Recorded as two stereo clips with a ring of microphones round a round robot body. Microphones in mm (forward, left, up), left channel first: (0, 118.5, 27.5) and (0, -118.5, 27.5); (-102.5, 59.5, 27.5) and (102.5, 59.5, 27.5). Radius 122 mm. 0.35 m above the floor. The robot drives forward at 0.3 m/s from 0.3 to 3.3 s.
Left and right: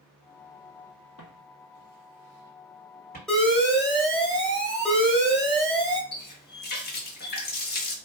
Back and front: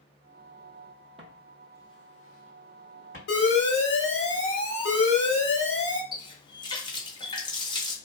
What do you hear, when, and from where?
1.2 s footsteps: 60° left, 0.8 m; by 3.2 s 150° left, 1.7 m
3.3 s an alarm: 175° left, 1.0 m; by 6.0 s straight behind, 1.0 m
6.1 s a running tap: 120° left, 0.6 m